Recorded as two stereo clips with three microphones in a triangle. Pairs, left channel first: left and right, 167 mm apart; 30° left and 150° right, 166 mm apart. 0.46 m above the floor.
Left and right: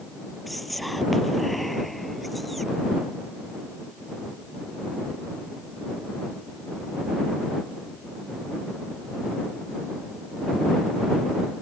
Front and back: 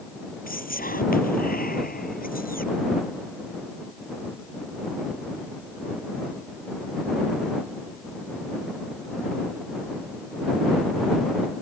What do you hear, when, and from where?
0.5 s whispering: straight ahead